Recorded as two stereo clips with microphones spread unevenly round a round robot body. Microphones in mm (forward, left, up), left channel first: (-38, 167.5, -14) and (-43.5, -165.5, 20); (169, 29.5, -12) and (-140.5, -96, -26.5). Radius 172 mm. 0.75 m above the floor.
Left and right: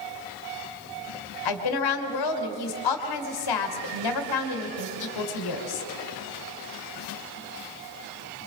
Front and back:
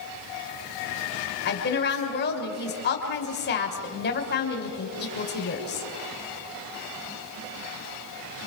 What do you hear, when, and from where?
1.4 s a woman speaking: 85° left, 3 m